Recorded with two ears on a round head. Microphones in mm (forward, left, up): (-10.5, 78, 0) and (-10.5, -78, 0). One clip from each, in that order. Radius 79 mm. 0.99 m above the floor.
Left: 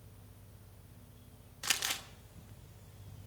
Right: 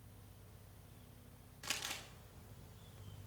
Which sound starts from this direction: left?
Crumpling, at 1.6 s.